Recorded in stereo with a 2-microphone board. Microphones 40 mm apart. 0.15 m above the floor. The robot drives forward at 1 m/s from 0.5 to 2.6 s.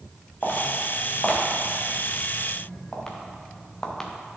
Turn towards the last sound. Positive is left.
turn(degrees=15)  # may be behind; listen again after turning